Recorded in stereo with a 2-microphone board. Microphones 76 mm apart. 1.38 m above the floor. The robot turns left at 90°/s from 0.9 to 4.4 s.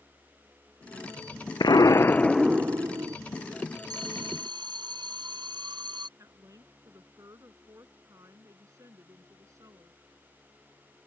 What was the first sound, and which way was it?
An explosion, 75° left.